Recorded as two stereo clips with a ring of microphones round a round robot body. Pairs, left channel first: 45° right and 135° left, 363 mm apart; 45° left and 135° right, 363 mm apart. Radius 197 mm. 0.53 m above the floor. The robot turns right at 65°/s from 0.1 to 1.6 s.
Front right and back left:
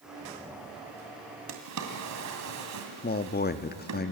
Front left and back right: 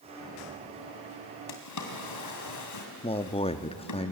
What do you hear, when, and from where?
1.5 s a drawer: 80° left, 3 m; by 4.0 s 90° left, 3 m
3.0 s a man speaking: 15° right, 0.9 m